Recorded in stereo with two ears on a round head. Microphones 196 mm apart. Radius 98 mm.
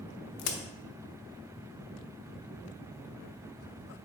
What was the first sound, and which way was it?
A crack, 70° left (ahead or behind).